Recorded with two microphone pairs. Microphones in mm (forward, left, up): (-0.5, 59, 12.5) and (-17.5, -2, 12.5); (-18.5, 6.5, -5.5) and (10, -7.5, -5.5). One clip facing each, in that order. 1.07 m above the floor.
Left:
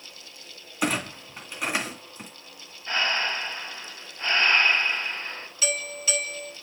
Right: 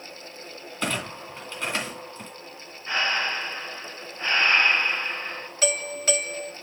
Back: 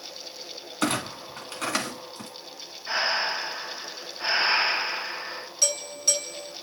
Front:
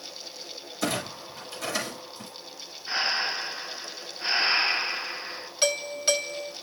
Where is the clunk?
150° left, 1.6 m.